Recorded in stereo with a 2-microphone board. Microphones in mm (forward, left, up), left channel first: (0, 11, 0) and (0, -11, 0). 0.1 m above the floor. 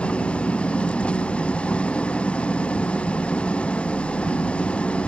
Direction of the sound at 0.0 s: 55° left (ahead or behind).